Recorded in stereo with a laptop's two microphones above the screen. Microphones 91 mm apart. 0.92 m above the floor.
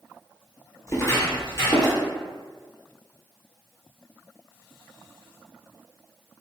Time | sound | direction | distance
0.9 | footsteps | 30° left (ahead or behind) | 1.0 m